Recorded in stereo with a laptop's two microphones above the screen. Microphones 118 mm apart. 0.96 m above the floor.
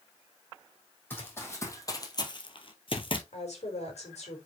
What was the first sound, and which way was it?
Running footsteps, 15° left (ahead or behind).